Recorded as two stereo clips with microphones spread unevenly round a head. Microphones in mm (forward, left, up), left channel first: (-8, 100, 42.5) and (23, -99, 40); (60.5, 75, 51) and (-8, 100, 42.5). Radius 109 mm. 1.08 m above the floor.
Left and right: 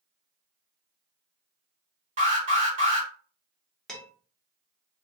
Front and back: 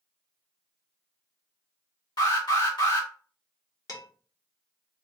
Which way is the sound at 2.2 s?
30° right.